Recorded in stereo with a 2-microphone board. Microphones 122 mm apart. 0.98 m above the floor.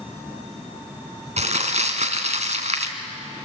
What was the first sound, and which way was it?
Crumpling, 70° right (ahead or behind).